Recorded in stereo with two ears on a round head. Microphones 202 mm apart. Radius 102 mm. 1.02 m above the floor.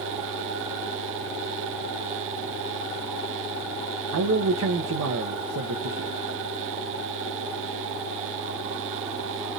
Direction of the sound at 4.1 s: 70° right (ahead or behind).